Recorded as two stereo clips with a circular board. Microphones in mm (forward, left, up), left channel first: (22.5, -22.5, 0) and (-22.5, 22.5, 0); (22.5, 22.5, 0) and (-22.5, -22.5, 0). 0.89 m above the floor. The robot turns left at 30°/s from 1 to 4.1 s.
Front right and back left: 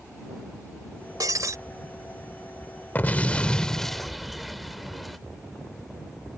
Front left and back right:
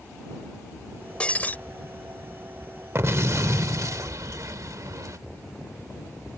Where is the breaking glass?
115° left; by 1.6 s 105° left.